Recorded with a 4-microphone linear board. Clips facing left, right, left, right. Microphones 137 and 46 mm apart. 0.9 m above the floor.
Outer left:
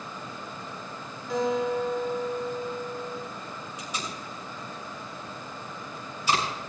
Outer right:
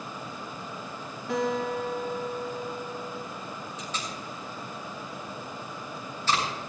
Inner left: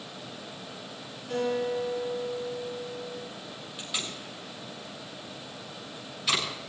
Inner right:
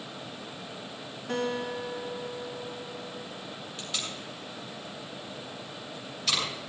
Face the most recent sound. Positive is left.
turn(degrees=10)  # may be behind; listen again after turning